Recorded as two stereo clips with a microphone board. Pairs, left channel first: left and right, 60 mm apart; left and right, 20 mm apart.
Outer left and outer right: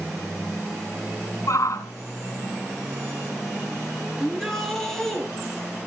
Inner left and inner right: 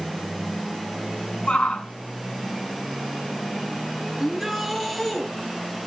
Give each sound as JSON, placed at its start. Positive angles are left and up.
{"t": 1.5, "sound": "a shout", "side_deg": 65, "distance_m": 3.0}
{"t": 4.2, "sound": "a shout", "side_deg": 5, "distance_m": 5.0}